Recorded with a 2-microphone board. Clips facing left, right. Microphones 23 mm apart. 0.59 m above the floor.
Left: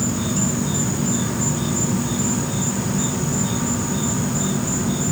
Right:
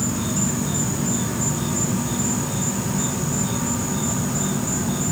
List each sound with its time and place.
0.0 s an insect: 15° left (ahead or behind)